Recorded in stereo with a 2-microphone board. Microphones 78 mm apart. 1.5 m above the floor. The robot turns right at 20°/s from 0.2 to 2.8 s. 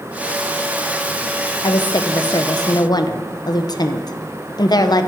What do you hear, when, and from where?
1.6 s a woman speaking: 70° left (ahead or behind), 0.7 m; by 5.1 s 60° left (ahead or behind), 0.7 m